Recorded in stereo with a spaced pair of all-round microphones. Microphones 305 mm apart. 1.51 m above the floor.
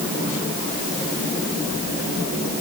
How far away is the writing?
I don't hear writing.